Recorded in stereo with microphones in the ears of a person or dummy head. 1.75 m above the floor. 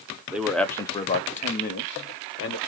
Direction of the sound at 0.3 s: 5° right (ahead or behind).